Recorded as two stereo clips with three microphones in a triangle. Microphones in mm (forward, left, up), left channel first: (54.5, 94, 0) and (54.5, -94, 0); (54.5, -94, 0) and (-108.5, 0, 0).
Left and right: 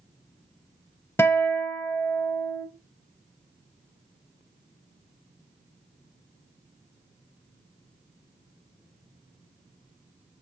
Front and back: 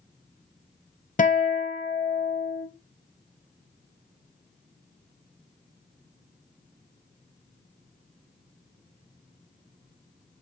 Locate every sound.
1.2 s a guitar: 10° left, 0.6 m